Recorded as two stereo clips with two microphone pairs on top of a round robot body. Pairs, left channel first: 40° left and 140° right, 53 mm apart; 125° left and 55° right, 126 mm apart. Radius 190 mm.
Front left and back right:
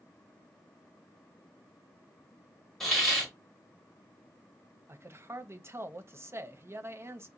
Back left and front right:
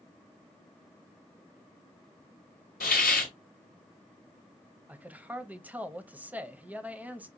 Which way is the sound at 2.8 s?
130° left.